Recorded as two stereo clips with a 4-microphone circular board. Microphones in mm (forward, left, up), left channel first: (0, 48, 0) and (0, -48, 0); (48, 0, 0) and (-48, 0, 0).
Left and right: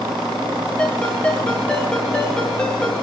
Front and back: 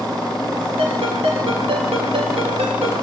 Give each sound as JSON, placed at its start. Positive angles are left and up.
{"t": 0.8, "sound": "a ringtone", "azimuth_deg": 170, "distance_m": 7.0}